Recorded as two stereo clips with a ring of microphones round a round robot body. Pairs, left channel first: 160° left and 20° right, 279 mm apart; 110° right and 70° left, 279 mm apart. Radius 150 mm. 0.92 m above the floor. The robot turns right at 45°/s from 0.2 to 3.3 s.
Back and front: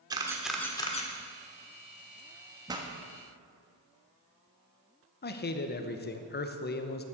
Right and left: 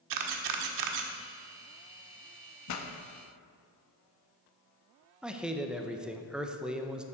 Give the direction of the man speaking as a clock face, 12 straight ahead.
7 o'clock.